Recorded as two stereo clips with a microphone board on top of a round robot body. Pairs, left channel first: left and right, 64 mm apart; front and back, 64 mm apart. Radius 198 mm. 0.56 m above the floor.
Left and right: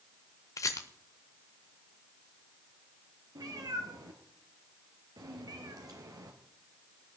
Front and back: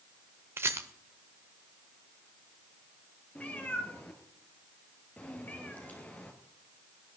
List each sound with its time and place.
0.6 s a rattle: 130° left, 0.6 m
3.4 s a cat meowing: 65° right, 1.5 m